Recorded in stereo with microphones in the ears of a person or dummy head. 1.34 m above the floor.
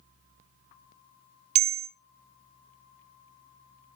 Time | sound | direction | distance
1.6 | a bell | 40° right (ahead or behind) | 0.5 m